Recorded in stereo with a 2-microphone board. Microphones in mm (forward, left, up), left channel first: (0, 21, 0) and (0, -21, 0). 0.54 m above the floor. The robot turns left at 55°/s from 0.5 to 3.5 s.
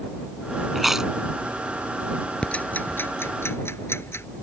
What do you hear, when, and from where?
0.8 s chewing: centre (ahead or behind); by 1.1 s 20° right (ahead or behind)
2.4 s ticking: 30° left (ahead or behind); by 4.3 s 85° left